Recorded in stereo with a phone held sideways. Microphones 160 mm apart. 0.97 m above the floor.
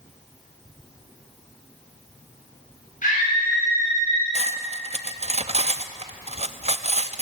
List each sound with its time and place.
3.0 s a scream: 55° left (ahead or behind), 5 m; by 4.2 s 40° left (ahead or behind), 5 m
4.3 s cutlery clinking: 40° right (ahead or behind), 0.5 m